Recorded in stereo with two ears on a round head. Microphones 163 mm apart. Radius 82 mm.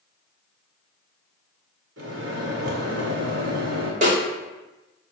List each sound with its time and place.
2.0 s a microwave: 75° right (ahead or behind), 0.9 m
4.0 s a snare drum: 45° right (ahead or behind), 0.9 m